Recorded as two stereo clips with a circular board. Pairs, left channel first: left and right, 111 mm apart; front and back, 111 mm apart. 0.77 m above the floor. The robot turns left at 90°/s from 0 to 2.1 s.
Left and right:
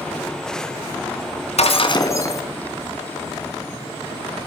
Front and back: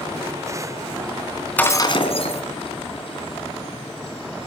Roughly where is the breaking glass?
Left.